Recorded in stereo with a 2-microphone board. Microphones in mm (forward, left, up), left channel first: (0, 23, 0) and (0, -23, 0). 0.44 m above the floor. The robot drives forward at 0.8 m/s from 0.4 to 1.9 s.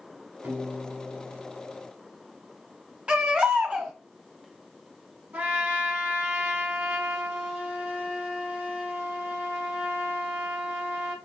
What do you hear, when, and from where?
0.4 s a piano: 40° right (ahead or behind), 1.3 m; by 1.9 s 25° right (ahead or behind), 2.5 m
3.1 s a baby crying: 25° right (ahead or behind), 0.8 m
5.3 s a trumpet: 40° right (ahead or behind), 1.2 m